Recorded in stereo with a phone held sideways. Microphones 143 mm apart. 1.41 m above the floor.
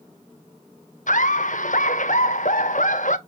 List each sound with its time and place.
1.1 s laughter: 65° left (ahead or behind), 0.5 m